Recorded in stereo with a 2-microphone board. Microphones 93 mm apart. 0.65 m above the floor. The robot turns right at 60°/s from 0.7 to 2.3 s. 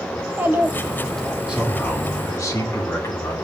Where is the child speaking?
20° right, 1.6 m; by 1.4 s 20° left, 1.6 m.